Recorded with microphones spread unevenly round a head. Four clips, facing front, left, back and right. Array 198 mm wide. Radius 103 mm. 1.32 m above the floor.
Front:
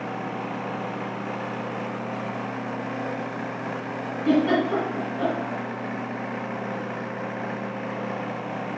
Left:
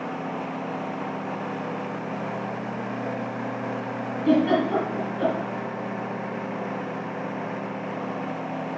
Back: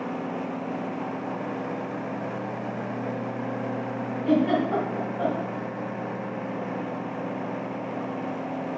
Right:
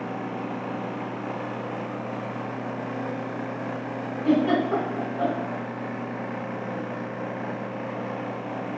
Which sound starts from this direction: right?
A giggle, at 4.2 s.